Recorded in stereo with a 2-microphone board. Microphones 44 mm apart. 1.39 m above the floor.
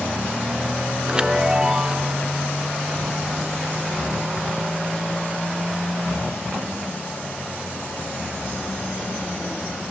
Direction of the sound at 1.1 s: 20° right (ahead or behind).